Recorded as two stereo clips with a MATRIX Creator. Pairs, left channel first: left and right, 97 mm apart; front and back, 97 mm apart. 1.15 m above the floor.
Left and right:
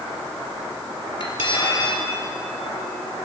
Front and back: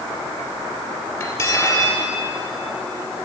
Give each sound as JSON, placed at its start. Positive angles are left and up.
{"t": 1.2, "sound": "cutlery clinking", "azimuth_deg": 55, "distance_m": 2.5}